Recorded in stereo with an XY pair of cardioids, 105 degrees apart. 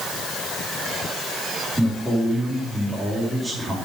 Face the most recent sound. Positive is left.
turn(degrees=-10)